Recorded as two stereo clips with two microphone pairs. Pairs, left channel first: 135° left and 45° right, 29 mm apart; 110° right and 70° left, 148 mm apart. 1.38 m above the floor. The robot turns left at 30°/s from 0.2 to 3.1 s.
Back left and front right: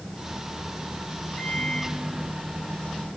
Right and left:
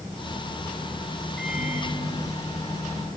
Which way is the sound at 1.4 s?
155° left.